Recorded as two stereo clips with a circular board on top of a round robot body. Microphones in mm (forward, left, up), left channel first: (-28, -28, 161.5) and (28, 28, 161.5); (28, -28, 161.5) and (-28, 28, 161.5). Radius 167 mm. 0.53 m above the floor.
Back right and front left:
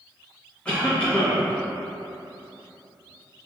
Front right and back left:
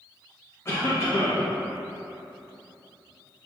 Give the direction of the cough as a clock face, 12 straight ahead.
2 o'clock.